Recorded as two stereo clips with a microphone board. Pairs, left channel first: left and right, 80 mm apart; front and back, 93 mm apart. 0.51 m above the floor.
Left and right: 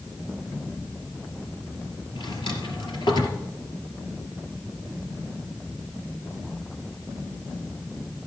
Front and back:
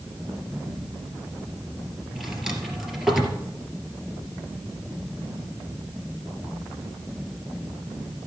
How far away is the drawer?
About 2.5 m.